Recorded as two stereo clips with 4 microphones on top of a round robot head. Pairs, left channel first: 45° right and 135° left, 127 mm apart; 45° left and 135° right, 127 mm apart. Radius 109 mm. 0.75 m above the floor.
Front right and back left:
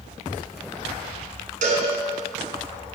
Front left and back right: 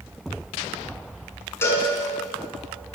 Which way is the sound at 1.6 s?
115° left.